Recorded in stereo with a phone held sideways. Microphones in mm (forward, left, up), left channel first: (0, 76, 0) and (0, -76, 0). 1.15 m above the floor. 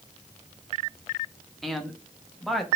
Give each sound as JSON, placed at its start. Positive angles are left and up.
{"t": 1.6, "sound": "a man speaking", "side_deg": 0, "distance_m": 1.2}